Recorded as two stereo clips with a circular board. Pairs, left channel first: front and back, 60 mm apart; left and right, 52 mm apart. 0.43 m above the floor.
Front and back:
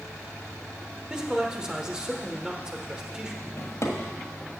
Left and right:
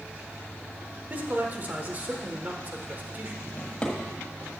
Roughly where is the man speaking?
Right.